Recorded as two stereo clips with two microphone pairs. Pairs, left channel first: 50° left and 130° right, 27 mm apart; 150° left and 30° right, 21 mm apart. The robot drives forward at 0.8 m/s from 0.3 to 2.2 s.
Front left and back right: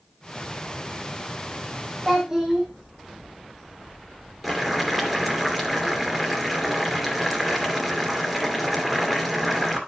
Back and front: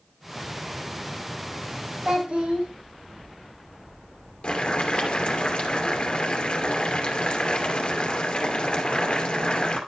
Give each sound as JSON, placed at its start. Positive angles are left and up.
{"t": 2.0, "sound": "a child speaking", "azimuth_deg": -55, "distance_m": 4.0}
{"t": 4.4, "sound": "boiling", "azimuth_deg": 140, "distance_m": 2.5}